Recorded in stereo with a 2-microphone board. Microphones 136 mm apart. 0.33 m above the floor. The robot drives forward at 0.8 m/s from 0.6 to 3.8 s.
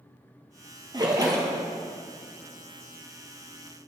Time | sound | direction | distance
0.9 | a splash | 30° right (ahead or behind) | 1.7 m